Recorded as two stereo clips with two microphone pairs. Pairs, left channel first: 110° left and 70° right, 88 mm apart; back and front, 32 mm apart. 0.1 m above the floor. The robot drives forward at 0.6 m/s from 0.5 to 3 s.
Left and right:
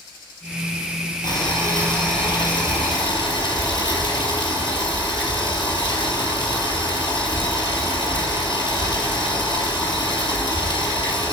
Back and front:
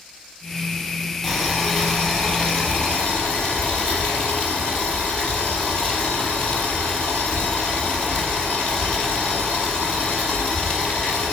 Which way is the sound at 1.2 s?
100° left.